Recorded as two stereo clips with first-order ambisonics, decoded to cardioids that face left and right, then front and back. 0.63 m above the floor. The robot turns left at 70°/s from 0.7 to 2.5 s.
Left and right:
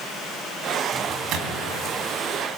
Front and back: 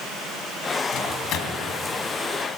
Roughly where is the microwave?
Ahead.